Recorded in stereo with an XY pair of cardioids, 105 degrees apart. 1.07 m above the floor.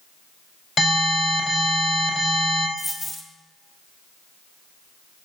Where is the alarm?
50° left, 4.5 m.